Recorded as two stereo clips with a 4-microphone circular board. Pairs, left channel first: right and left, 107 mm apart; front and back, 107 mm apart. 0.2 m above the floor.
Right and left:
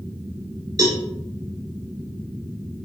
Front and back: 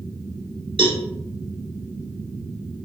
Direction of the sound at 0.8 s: 145° left.